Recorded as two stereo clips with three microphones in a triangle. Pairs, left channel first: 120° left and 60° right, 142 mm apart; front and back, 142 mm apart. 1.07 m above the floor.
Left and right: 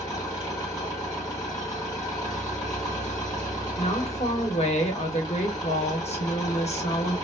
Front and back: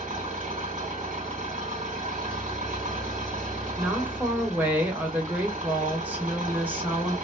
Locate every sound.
0.0 s an engine running: 175° right, 1.8 m
3.8 s a woman speaking: 105° left, 1.1 m